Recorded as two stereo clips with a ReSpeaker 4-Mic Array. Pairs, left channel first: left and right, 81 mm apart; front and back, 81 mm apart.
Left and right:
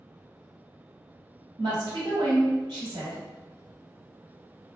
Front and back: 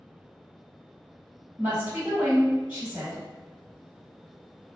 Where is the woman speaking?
105° right, 1.5 m.